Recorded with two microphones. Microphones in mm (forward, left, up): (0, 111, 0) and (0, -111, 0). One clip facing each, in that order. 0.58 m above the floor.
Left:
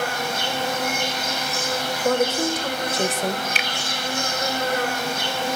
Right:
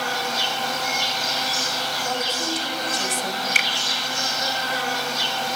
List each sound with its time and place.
0.0 s an insect: 55° left (ahead or behind), 4.5 m
2.0 s a woman speaking: 65° left (ahead or behind), 2.5 m
3.5 s a finger snap: 55° right (ahead or behind), 1.1 m